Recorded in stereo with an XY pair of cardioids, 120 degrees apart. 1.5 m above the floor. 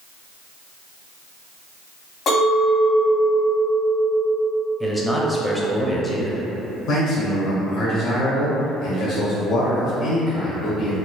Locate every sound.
2.3 s a clink: 60° left, 1.7 m
4.8 s a man speaking: 5° left, 0.6 m
6.9 s a man speaking: 70° left, 1.4 m